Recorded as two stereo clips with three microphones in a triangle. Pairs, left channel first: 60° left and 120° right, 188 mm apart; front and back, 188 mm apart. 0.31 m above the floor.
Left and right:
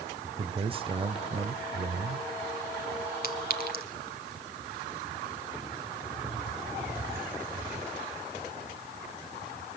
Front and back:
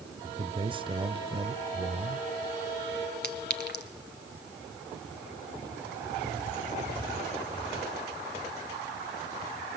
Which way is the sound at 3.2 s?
25° left.